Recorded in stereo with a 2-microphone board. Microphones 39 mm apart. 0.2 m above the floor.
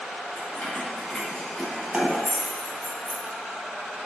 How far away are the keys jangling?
About 1.6 m.